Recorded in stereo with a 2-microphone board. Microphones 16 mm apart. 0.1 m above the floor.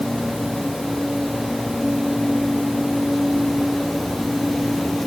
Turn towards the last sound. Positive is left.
No sound to turn to.